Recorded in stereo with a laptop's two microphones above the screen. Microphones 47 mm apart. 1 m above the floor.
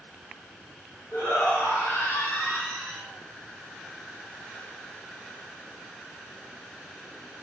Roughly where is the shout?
Left.